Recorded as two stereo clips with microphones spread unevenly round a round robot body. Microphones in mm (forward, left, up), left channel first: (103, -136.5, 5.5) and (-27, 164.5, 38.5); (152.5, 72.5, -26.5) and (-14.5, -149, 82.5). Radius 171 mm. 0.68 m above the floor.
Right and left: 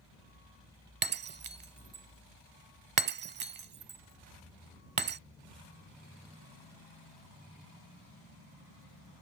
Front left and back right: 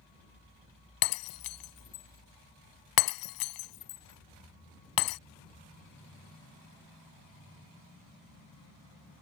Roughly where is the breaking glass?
Ahead left.